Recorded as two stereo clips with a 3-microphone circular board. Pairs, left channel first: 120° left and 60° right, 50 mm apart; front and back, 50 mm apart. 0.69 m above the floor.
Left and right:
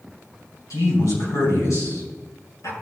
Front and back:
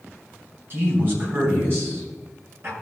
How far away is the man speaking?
About 4.5 m.